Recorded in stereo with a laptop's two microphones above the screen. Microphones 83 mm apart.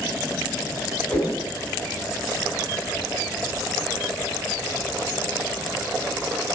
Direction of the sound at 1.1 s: 20° left (ahead or behind).